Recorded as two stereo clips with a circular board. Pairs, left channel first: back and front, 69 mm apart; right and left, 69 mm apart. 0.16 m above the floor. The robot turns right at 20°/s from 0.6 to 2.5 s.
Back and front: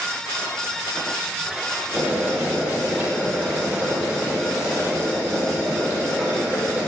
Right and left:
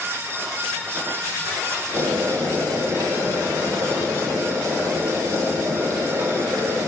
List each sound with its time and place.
1.9 s boiling: 45° left, 5.5 m; by 6.9 s 55° left, 5.5 m